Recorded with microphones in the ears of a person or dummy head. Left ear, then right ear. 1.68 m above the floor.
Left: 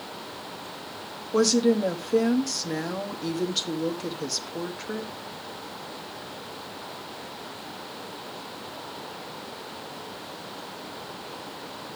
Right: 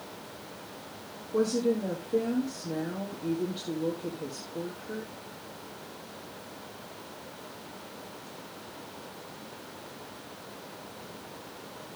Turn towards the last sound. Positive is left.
turn(degrees=70)  # may be behind; listen again after turning